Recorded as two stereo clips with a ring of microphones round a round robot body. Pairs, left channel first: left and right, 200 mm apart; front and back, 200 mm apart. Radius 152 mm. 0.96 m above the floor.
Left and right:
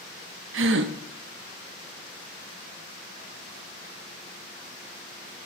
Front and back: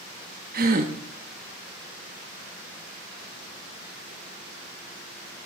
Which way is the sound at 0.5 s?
125° right.